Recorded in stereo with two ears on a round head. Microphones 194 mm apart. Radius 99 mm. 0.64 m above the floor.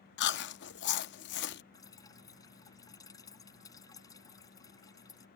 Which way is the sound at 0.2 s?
55° left (ahead or behind).